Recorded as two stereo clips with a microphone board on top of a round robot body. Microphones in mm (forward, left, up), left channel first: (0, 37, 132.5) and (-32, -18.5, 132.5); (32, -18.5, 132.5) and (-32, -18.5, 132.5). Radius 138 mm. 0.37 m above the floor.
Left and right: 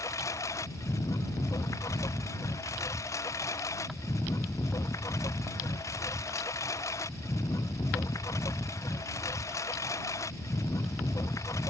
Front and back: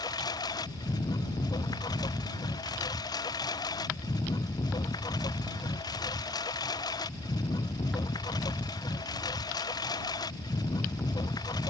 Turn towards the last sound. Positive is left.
turn(degrees=15)